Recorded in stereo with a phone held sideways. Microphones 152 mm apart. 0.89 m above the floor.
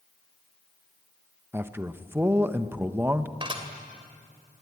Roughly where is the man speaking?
Centre.